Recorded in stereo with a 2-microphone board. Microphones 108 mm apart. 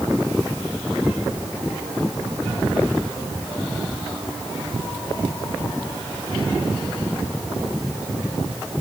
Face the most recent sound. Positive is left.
No sound to turn to.